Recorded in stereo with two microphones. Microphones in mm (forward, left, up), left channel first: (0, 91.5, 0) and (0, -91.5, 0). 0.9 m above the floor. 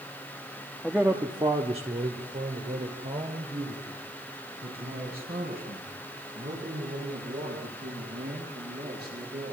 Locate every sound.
0.8 s a man speaking: centre (ahead or behind), 1.2 m; by 9.5 s 60° right (ahead or behind), 12.5 m